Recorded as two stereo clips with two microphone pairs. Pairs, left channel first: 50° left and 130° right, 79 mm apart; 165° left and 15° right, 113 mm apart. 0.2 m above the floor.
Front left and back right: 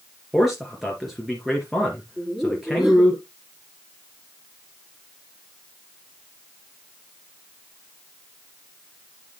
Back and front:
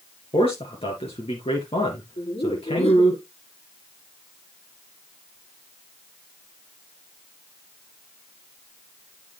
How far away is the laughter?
About 5.5 m.